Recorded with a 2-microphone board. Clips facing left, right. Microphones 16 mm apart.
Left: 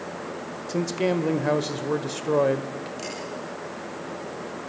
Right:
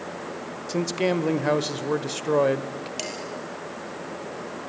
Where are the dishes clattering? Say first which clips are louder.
Right 5 dB; 80° right, 6 m.